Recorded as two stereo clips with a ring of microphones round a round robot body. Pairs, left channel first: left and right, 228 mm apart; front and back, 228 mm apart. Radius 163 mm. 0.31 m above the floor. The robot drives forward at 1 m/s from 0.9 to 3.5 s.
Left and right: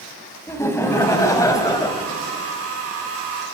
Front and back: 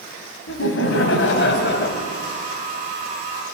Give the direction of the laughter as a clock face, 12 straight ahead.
12 o'clock.